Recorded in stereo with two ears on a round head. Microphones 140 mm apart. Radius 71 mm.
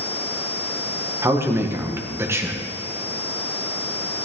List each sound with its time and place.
1.2 s a man speaking: 15° right (ahead or behind), 1.6 m